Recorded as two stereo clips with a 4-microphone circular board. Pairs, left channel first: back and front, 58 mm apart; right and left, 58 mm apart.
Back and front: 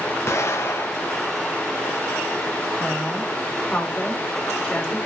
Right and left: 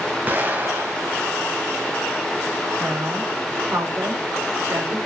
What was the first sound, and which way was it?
An explosion, 145° left.